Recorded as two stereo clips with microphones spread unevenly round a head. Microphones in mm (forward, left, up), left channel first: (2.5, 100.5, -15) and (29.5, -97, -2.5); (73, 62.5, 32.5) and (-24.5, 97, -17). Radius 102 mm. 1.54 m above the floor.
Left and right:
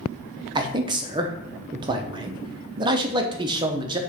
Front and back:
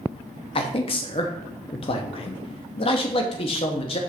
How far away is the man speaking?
About 0.8 m.